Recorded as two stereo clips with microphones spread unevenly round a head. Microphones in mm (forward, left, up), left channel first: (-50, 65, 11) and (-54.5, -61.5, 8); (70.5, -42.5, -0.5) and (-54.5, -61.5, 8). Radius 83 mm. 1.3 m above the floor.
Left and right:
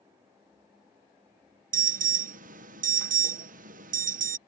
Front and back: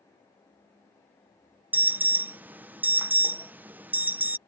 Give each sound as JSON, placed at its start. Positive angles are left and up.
{"t": 1.7, "sound": "an alarm", "azimuth_deg": -95}